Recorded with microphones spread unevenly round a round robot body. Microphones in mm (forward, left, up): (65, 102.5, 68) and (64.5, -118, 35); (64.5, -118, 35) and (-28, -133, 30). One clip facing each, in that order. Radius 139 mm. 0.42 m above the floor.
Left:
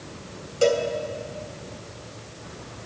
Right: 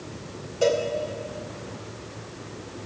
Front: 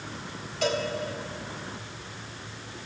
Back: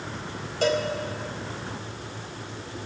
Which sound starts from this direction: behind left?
A cowbell, at 0.6 s.